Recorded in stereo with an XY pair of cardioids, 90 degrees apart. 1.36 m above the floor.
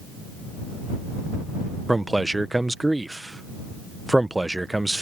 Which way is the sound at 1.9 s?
10° right.